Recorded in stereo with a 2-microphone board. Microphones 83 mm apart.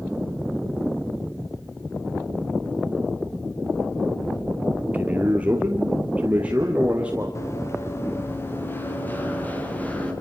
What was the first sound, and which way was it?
A man speaking, 20° right (ahead or behind).